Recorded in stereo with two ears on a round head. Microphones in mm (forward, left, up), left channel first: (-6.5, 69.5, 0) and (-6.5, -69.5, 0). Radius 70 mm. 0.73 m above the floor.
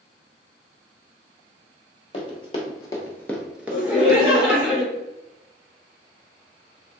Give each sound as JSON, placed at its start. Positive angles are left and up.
{"t": 2.1, "sound": "running footsteps", "side_deg": 35, "distance_m": 1.2}
{"t": 3.7, "sound": "laughter", "side_deg": -15, "distance_m": 1.3}